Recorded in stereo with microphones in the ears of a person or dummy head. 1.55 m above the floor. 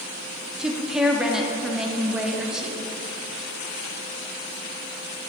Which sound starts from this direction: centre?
A woman speaking, at 0.6 s.